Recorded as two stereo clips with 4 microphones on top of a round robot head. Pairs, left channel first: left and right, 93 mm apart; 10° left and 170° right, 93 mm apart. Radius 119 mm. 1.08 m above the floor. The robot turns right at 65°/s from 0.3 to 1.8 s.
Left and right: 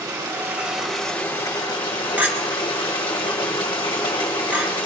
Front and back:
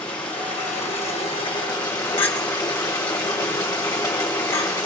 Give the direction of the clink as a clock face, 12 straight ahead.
1 o'clock.